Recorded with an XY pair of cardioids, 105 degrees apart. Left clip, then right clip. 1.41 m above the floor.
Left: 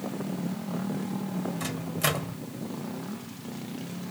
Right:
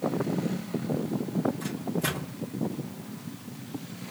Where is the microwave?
70° left, 2.0 m.